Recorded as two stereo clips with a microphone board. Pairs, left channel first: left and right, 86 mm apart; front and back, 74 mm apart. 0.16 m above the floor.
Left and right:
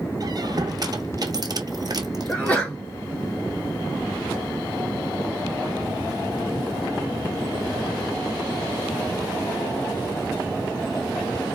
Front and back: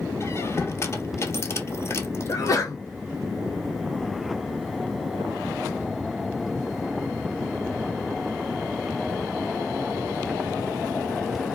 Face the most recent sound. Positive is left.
turn(degrees=20)